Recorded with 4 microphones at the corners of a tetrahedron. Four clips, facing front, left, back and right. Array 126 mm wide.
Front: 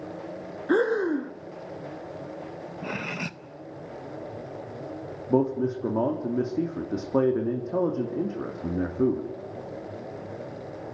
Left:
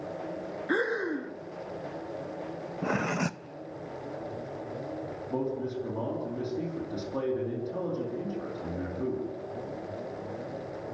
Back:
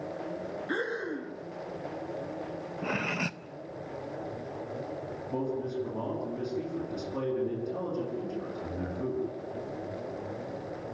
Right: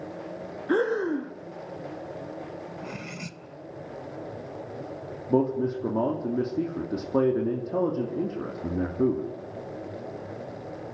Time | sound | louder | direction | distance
0.7 | breathing | right 5 dB, front 12 dB | 20° right | 0.7 m
2.8 | cutlery clinking | left 8 dB, back 1 dB | 90° left | 0.6 m
5.3 | a man speaking | right 9 dB, front 9 dB | 40° right | 2.5 m